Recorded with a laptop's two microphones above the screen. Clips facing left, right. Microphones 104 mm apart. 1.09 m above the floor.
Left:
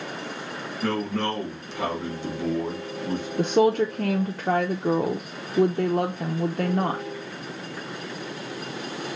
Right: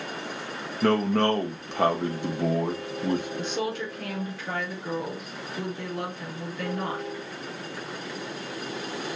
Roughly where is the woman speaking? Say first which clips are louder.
Left 10 dB; left.